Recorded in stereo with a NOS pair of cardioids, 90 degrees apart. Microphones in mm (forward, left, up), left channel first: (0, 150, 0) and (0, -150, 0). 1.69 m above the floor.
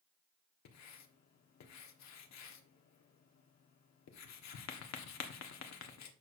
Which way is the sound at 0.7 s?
65° left.